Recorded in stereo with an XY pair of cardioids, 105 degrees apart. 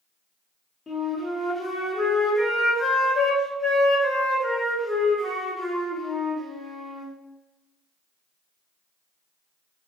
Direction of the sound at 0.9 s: 25° left.